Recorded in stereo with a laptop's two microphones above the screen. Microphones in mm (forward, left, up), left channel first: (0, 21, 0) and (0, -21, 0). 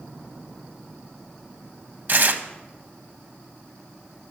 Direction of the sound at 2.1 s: 45° right (ahead or behind).